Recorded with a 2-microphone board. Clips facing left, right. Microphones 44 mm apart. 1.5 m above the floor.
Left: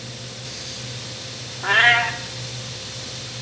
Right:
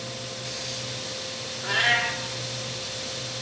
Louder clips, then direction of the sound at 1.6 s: Left 7 dB; 45° left (ahead or behind).